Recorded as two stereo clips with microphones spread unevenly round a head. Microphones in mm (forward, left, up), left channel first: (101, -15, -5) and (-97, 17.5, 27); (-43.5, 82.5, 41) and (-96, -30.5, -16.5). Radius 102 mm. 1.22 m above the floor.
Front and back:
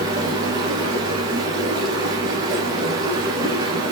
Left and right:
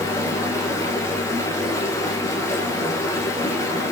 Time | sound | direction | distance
0.0 | running water | 110° left | 2 m